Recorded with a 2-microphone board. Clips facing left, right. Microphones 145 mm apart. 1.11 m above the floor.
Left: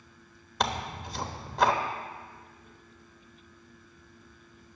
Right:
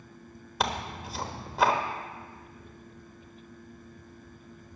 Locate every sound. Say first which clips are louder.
0.6 s tearing paper: even; 5° right (ahead or behind), 1.0 m